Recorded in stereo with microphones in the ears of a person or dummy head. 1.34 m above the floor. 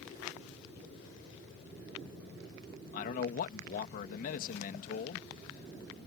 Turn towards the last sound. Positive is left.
turn(degrees=50)  # may be behind; listen again after turning